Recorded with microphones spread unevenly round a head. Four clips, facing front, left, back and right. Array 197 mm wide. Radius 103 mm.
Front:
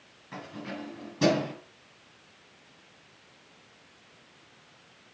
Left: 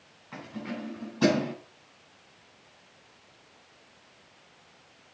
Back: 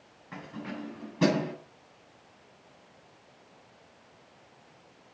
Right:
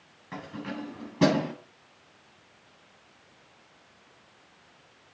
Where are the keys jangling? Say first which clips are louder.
Right 1 dB, even; 95° right, 8 m; by 1.5 s 105° right, 8 m.